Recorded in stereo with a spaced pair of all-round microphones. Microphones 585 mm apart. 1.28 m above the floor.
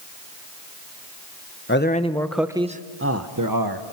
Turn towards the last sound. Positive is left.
turn(degrees=-40)  # may be behind; listen again after turning